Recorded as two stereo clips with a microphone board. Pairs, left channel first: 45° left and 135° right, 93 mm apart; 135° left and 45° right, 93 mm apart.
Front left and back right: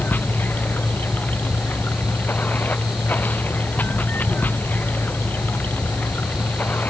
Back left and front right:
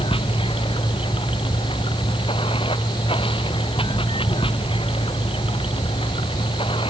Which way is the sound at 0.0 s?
115° left.